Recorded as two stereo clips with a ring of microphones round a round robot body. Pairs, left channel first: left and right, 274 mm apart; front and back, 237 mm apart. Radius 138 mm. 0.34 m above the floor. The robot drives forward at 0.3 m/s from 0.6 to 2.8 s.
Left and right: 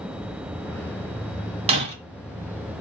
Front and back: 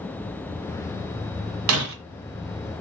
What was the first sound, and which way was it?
Breaking glass, 160° right.